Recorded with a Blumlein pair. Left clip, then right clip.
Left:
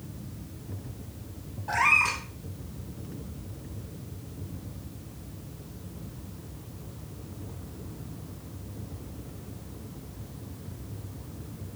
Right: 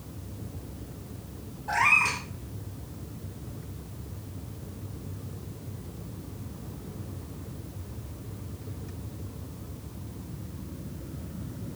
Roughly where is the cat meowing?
Ahead.